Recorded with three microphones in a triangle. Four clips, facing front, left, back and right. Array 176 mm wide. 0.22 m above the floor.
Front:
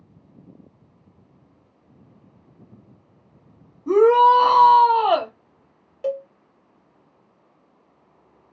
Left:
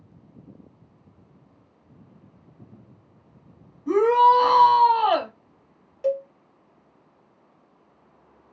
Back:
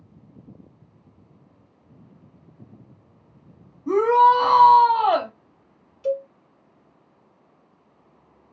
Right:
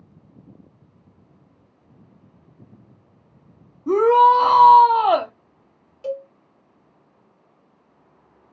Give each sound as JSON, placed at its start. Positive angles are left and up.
{"t": 3.9, "sound": "a shout", "azimuth_deg": -85, "distance_m": 1.4}
{"t": 6.0, "sound": "a cowbell", "azimuth_deg": 20, "distance_m": 0.7}